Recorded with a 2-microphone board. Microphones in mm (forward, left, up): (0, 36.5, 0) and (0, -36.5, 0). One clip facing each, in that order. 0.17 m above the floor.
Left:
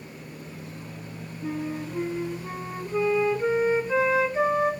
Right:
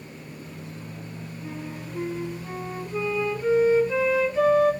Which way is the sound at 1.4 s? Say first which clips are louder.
Left 7 dB; 30° left (ahead or behind).